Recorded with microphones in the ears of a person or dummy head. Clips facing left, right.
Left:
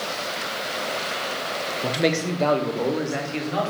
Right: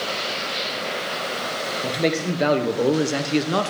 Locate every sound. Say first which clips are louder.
1.8 s a man speaking: even; 10° left (ahead or behind), 0.8 m; by 3.7 s 60° right (ahead or behind), 0.9 m